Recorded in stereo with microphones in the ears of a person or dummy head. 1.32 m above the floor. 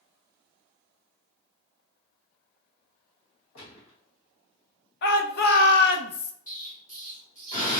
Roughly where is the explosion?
Left.